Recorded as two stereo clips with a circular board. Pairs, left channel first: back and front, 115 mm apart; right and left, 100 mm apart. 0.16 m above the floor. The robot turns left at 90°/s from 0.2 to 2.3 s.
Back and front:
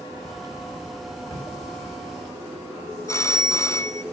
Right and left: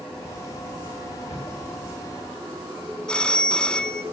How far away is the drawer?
About 6.5 m.